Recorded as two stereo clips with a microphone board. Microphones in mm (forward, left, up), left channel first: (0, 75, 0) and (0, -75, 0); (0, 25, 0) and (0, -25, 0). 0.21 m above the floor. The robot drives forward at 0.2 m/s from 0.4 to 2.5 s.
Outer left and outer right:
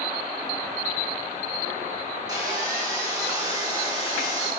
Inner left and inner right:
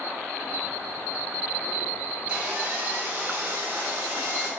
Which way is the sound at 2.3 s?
25° right (ahead or behind).